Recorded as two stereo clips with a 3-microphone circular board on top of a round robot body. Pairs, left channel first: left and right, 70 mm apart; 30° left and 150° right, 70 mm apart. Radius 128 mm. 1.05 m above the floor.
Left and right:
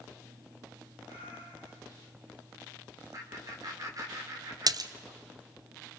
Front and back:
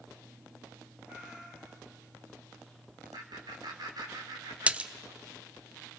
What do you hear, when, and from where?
1.1 s a cat meowing: 85° right, 4.5 m
3.1 s laughter: 125° right, 4.5 m
4.7 s a splash: 80° right, 0.9 m